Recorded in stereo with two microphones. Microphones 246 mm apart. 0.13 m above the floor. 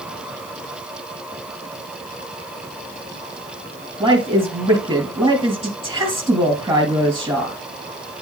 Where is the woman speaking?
15° right (ahead or behind), 3 m.